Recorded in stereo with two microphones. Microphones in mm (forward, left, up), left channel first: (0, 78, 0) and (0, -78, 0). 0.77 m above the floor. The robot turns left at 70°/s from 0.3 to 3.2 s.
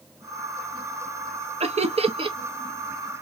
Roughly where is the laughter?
Right.